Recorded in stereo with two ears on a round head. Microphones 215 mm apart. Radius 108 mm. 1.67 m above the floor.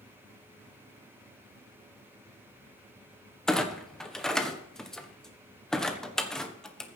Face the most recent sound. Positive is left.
turn(degrees=0)  # may be behind; listen again after turning